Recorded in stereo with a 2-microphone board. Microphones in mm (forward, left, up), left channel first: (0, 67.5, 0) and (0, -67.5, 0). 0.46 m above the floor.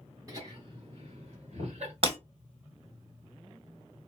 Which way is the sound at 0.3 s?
25° right (ahead or behind).